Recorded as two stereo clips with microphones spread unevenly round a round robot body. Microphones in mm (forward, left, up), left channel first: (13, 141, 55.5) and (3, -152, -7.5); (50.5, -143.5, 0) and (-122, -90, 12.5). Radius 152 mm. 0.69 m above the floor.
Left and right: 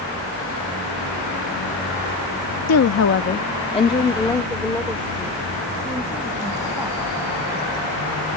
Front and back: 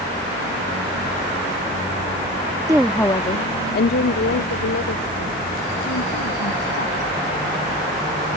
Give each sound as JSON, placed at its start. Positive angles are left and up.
{"t": 2.7, "sound": "a woman speaking", "azimuth_deg": 90}